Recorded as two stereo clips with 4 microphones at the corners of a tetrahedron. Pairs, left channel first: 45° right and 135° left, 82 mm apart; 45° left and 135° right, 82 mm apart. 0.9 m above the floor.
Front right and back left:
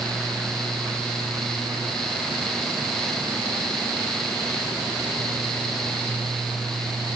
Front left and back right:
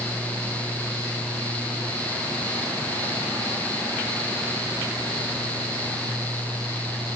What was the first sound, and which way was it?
Only background noise.